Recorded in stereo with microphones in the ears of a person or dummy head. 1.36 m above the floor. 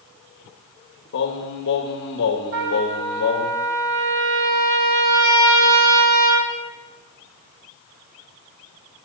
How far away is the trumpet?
About 3 m.